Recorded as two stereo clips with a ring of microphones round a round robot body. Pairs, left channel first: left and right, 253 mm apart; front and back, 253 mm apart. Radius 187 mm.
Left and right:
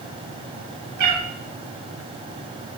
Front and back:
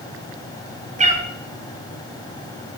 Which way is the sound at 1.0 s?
115° right.